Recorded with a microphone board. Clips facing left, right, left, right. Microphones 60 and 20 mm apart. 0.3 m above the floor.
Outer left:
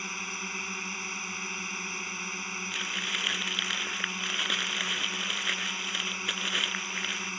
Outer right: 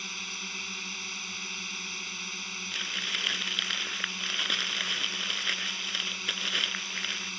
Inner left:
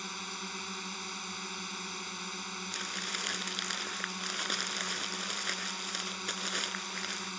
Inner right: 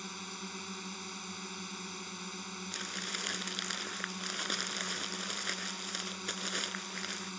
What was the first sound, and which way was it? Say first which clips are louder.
A drone: outer left 3 dB, inner left 3 dB; 20° left (ahead or behind).